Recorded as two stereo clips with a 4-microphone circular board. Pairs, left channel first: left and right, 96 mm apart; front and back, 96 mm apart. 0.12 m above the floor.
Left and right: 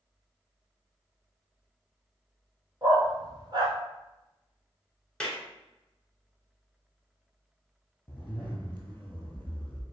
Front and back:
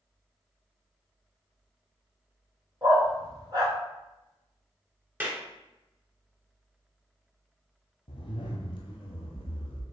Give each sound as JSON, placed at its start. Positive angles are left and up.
{"t": 2.8, "sound": "a dog barking", "azimuth_deg": -135, "distance_m": 1.2}
{"t": 5.2, "sound": "a clap", "azimuth_deg": 155, "distance_m": 1.0}
{"t": 8.1, "sound": "a zipper", "azimuth_deg": 20, "distance_m": 0.8}